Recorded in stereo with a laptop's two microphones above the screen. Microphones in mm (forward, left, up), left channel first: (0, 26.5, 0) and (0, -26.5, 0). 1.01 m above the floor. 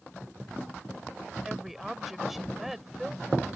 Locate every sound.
1.4 s a woman speaking: 5° right (ahead or behind)